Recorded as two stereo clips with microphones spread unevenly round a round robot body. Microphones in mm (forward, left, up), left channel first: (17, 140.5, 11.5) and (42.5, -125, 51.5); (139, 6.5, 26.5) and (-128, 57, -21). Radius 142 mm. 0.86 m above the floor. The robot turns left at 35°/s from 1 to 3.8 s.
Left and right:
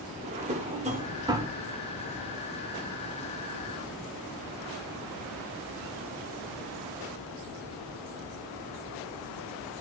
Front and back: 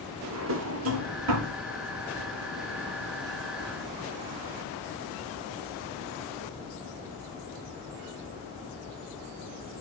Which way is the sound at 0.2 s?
145° right.